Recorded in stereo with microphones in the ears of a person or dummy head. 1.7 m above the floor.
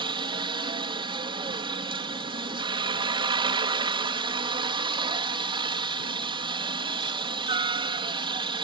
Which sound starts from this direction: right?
A helicopter, at 0.0 s.